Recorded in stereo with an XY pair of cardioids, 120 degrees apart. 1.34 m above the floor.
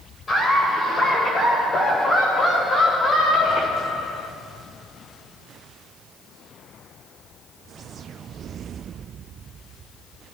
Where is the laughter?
30° left, 3.5 m; by 4.3 s 70° left, 2 m.